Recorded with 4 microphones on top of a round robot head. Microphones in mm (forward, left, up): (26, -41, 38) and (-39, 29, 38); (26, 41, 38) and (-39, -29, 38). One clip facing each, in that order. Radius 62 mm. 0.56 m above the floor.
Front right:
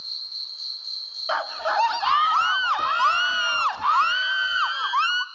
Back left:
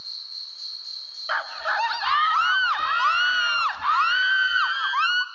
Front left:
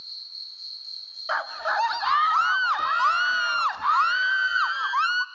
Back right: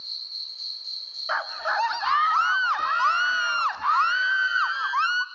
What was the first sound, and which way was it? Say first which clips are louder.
An insect: front right 2 dB, back right 4 dB; 120° right.